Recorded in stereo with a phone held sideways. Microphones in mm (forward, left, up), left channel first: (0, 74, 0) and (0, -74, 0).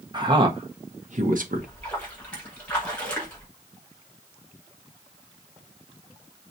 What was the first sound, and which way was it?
A man speaking, 30° right (ahead or behind).